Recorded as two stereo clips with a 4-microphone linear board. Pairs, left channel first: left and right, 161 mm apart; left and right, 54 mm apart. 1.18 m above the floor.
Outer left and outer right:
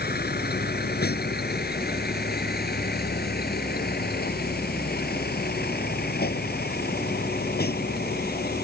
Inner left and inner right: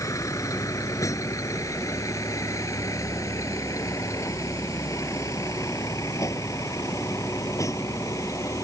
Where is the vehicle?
80° left; by 8.7 s 75° left (ahead or behind).